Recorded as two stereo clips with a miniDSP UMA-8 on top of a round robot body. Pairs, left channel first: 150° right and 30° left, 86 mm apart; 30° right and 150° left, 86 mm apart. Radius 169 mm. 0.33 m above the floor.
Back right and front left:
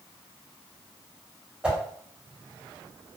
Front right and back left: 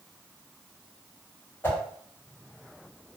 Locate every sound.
1.6 s a whoosh: 25° right, 1.3 m